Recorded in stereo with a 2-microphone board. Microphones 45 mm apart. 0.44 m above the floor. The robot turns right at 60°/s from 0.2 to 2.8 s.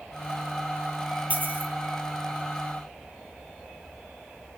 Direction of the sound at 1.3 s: 35° right (ahead or behind).